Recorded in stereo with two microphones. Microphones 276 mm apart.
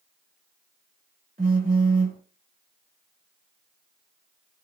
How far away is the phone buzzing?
About 1.1 m.